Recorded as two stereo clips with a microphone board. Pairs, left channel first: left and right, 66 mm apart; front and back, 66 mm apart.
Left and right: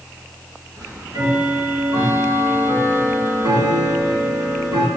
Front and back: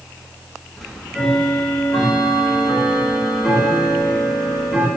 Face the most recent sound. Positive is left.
turn(degrees=-85)